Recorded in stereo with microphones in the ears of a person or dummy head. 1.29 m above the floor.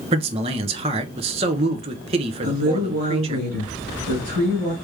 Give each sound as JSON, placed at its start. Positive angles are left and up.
{"t": 0.1, "sound": "a man speaking", "side_deg": -30, "distance_m": 0.8}
{"t": 2.4, "sound": "a woman speaking", "side_deg": -60, "distance_m": 2.0}